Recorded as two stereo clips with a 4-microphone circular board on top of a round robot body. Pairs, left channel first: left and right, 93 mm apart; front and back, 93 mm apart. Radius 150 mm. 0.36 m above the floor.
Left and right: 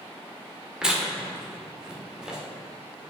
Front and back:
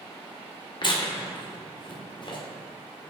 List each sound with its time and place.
0.8 s tearing paper: 10° right, 2 m